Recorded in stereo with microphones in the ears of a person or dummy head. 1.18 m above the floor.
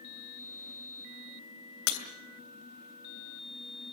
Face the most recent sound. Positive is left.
turn(degrees=75)  # may be behind; listen again after turning